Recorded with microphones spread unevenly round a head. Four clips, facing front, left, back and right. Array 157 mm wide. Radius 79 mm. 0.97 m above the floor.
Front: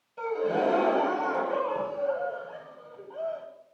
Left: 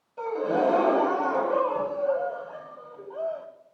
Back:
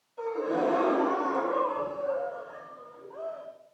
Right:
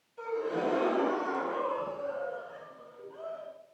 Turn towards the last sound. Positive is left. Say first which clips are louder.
# left 7 dB, front 2 dB
turn(degrees=70)